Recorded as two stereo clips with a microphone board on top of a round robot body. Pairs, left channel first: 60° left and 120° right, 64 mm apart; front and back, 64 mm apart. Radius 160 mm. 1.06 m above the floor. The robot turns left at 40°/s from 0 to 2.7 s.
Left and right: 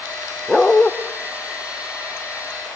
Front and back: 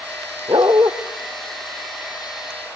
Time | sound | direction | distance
0.5 | a dog barking | 145° left | 0.8 m